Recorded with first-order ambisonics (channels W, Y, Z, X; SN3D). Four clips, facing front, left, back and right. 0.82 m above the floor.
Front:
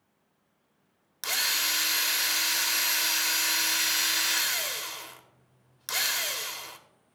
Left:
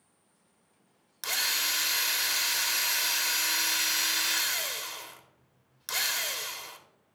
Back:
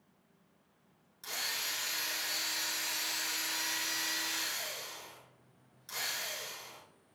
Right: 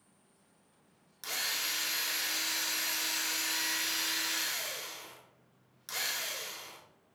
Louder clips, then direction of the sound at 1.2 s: Left 6 dB, front 9 dB; 30° left.